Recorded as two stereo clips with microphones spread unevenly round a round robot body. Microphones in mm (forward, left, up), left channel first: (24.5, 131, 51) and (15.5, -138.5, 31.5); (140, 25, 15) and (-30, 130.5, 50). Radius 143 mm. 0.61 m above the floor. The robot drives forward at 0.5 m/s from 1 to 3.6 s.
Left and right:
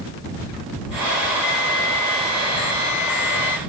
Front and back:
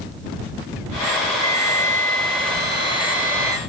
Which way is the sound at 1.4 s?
40° left.